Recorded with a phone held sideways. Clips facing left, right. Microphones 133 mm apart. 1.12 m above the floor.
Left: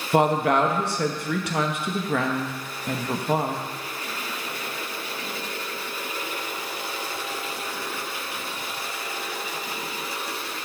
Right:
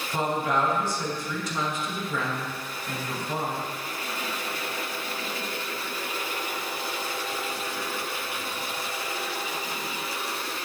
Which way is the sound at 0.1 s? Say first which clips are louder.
Left 7 dB; 70° left (ahead or behind).